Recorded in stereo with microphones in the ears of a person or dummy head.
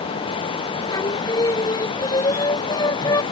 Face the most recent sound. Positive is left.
turn(degrees=25)  # may be behind; listen again after turning